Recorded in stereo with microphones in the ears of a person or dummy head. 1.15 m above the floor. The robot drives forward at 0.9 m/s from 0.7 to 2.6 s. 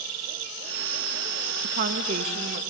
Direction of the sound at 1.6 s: 50° right (ahead or behind).